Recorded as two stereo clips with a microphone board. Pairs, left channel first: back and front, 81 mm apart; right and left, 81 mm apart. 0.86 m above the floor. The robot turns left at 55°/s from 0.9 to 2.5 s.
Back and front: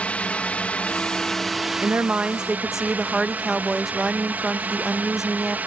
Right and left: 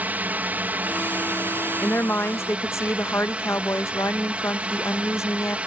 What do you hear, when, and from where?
0.0 s a drone: 125° left; by 5.7 s 40° left
1.8 s a woman speaking: 40° right; by 5.6 s 80° right